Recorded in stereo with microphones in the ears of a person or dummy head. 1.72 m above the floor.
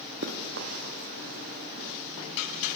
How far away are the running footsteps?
About 3.5 m.